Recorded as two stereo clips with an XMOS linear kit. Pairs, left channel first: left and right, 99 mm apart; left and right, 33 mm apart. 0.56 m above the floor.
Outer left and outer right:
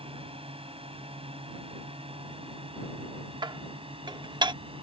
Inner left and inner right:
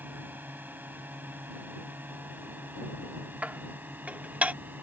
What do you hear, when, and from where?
0.0 s a drone: 70° right (ahead or behind); by 4.8 s 65° right (ahead or behind)
3.4 s dishes clattering: 50° right (ahead or behind)